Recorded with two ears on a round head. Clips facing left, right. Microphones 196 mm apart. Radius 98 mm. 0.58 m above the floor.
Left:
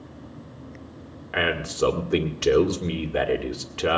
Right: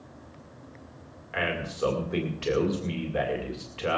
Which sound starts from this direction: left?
A man speaking, at 1.3 s.